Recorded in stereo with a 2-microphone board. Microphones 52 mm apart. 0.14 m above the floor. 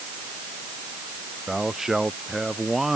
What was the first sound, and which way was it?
A man speaking, 10° right (ahead or behind).